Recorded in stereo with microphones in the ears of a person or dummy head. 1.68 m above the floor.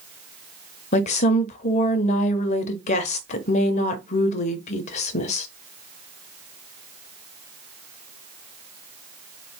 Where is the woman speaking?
35° left (ahead or behind), 0.9 m.